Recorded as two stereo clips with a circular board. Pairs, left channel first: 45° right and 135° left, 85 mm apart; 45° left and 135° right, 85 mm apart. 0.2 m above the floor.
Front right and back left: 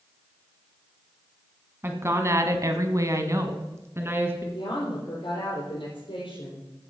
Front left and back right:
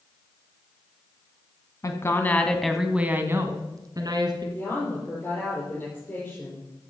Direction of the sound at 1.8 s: 80° left.